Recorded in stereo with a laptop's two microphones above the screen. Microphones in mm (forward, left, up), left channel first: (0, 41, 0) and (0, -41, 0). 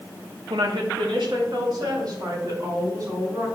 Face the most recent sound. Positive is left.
turn(degrees=-45)  # may be behind; listen again after turning